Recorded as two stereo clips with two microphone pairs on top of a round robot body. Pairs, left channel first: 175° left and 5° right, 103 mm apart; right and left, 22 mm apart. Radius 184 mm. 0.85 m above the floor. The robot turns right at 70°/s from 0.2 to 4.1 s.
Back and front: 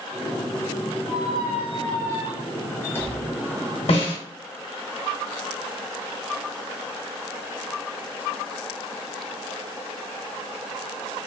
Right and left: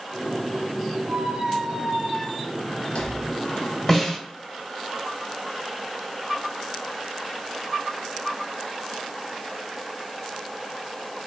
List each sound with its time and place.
1.1 s a squeak: 115° left, 0.6 m; by 3.8 s 60° right, 0.6 m
3.9 s a snare drum: 160° right, 1.2 m; by 4.2 s 150° right, 1.2 m